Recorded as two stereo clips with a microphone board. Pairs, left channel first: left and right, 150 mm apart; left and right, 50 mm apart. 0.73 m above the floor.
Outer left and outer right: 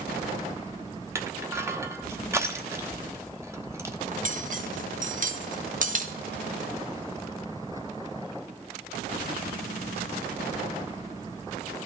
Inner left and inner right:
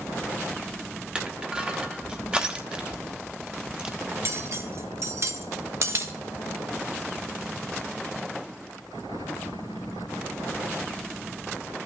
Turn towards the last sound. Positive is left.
turn(degrees=-55)  # may be behind; listen again after turning